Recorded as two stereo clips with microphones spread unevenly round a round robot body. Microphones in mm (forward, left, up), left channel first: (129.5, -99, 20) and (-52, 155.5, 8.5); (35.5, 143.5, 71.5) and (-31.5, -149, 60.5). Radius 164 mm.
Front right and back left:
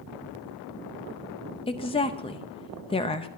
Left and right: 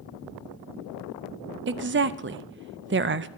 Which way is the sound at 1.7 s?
120° right.